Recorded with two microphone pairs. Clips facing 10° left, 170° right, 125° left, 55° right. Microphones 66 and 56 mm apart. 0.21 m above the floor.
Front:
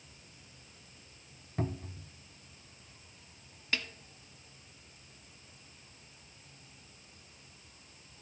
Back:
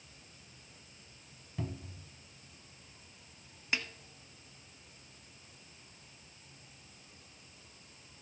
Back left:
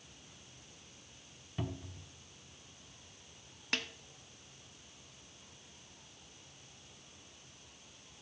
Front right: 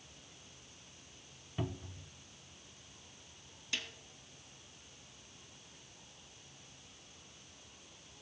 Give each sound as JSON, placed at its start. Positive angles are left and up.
{"t": 1.6, "sound": "a cupboard door", "azimuth_deg": 30, "distance_m": 0.7}
{"t": 3.7, "sound": "a snare drum", "azimuth_deg": 125, "distance_m": 1.0}